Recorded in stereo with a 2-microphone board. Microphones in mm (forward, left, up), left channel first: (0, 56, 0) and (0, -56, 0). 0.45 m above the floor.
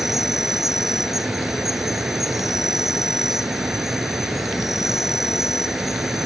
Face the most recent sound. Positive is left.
turn(degrees=0)  # may be behind; listen again after turning